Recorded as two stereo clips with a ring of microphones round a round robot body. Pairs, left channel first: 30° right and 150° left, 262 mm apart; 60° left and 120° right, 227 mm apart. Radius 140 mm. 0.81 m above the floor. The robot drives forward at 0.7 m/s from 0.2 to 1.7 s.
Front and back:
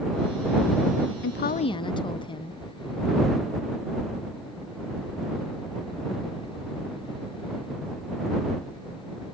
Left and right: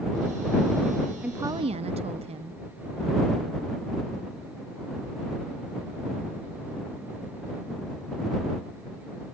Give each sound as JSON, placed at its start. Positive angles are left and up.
{"t": 1.2, "sound": "a woman speaking", "azimuth_deg": -35, "distance_m": 0.6}